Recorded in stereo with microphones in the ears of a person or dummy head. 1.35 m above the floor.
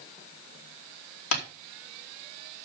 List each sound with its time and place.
1.3 s tapping: 75° left (ahead or behind), 3 m